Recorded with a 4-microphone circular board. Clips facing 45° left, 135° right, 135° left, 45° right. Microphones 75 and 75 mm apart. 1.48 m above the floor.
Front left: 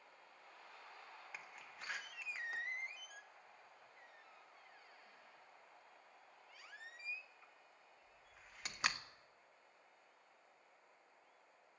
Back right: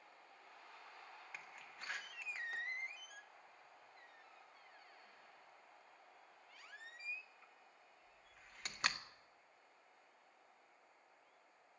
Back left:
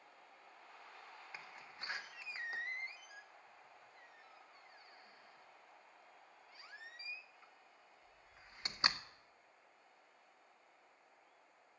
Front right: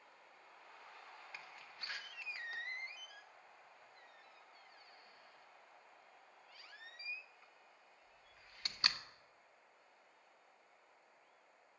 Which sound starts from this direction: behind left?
A door slam, at 1.3 s.